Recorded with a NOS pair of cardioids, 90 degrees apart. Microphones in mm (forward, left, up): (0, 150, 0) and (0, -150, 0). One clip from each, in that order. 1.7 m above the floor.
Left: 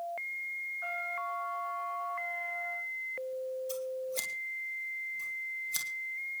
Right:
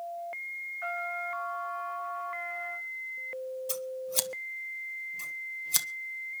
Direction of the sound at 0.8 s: 45° right.